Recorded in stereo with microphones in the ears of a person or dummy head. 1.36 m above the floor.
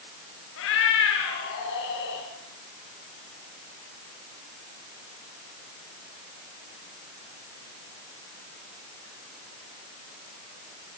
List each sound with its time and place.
0.6 s a cat meowing: 75° left (ahead or behind), 5.5 m; by 2.3 s 65° left (ahead or behind), 6.5 m